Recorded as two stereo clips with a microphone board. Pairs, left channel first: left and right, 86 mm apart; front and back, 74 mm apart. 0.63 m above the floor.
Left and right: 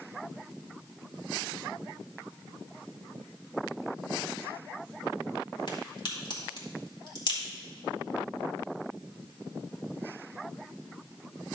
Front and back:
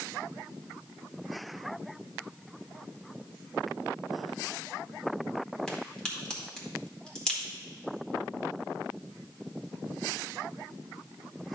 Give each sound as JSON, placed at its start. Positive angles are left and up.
{"t": 5.7, "sound": "a crack", "azimuth_deg": 80, "distance_m": 2.0}